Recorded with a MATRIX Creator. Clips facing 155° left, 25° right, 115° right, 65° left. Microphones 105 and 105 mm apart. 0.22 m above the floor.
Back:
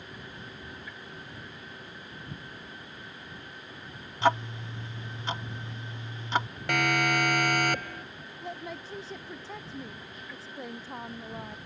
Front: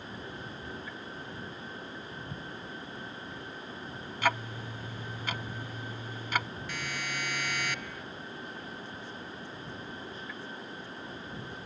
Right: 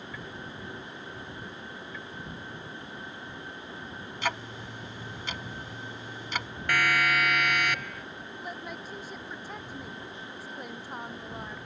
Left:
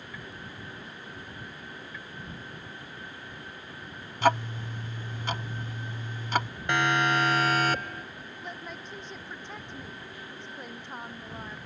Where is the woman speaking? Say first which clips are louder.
Back 3 dB, right 2 dB; 165° left.